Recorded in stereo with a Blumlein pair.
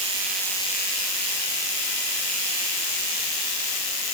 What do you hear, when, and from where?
Only background noise.